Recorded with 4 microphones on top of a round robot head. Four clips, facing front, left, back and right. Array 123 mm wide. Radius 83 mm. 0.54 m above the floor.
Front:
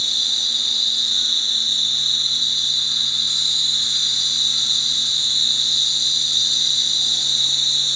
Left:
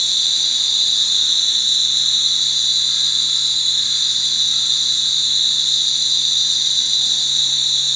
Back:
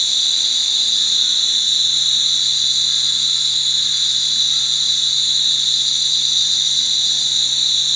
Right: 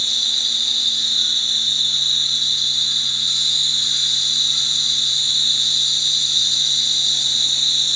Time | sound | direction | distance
0.0 | an insect | 95° left | 1.6 m